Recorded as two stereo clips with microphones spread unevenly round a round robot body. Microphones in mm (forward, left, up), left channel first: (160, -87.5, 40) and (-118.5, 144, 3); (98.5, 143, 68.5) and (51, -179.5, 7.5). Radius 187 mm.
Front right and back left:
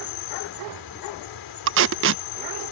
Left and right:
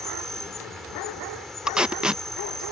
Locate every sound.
0.0 s an insect: 5° right
1.7 s tape being pulled: 175° right